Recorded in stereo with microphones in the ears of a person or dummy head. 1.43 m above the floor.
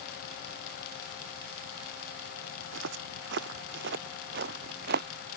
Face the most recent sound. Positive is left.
turn(degrees=-50)  # may be behind; listen again after turning